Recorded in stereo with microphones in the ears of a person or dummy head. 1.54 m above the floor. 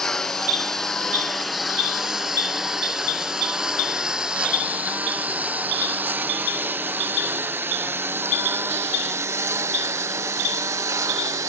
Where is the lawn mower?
5° left (ahead or behind); by 11.5 s 15° right (ahead or behind).